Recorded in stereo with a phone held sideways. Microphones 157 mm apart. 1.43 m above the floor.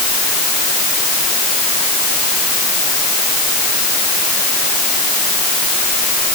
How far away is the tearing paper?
I don't hear tearing paper.